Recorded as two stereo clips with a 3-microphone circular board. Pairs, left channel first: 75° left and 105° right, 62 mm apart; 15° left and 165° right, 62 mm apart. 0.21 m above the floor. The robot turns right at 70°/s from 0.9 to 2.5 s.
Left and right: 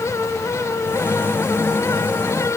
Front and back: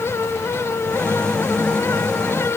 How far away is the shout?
I don't hear a shout.